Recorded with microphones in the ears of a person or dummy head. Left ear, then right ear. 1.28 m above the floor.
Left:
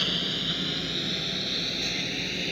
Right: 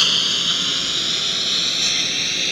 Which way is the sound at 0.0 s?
50° right (ahead or behind).